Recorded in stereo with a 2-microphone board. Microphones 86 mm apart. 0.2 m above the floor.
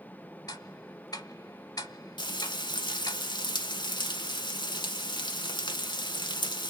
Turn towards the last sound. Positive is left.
turn(degrees=60)  # may be behind; listen again after turning